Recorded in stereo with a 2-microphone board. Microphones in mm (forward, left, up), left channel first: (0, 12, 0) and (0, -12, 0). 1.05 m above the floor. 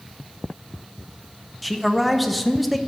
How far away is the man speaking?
About 0.7 m.